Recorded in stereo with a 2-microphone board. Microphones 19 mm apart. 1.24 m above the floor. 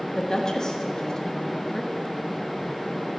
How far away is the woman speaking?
About 1.0 m.